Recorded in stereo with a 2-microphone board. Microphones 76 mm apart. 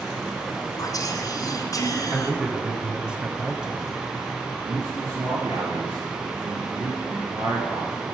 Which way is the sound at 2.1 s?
10° right (ahead or behind).